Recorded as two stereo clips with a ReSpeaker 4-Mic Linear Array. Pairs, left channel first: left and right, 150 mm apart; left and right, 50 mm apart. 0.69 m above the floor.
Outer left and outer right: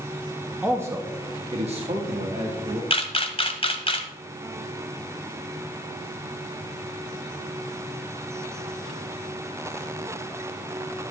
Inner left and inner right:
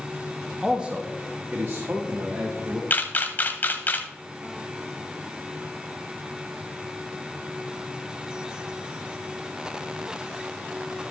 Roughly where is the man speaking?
Centre.